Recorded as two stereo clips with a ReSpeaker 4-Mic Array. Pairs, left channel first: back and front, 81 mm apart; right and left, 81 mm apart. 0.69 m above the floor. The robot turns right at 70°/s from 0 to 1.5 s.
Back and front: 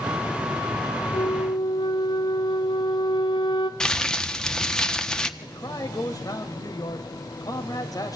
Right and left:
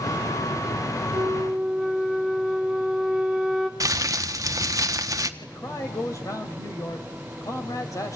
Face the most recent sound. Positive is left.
turn(degrees=-140)